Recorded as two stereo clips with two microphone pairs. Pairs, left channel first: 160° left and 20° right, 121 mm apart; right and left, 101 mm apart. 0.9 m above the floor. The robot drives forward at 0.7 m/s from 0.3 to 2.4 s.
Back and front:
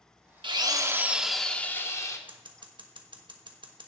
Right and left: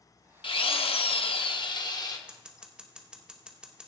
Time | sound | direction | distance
0.4 | a drill | 65° right | 0.9 m
2.3 | scissors | 10° left | 1.3 m